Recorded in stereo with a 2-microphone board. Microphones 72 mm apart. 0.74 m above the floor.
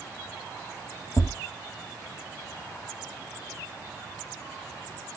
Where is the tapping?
55° left (ahead or behind), 0.8 m.